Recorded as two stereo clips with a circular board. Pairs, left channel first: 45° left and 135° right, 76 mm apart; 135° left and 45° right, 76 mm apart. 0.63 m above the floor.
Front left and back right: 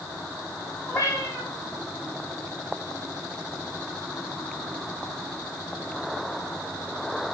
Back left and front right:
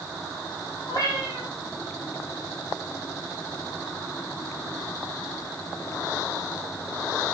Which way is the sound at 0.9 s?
100° left.